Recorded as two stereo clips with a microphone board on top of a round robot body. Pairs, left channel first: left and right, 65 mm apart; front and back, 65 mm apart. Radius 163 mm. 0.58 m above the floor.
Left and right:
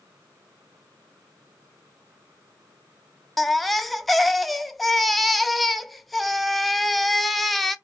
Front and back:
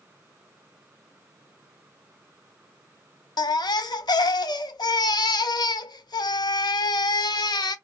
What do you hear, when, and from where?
3.4 s a baby crying: straight ahead, 0.5 m